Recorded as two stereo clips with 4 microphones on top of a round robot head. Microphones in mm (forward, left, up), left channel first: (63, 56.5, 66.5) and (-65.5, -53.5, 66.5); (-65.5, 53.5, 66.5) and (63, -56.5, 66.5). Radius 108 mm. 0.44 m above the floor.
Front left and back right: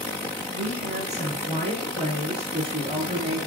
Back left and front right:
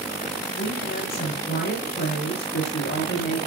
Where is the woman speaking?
175° left, 6 m; by 3.4 s 160° left, 6.5 m.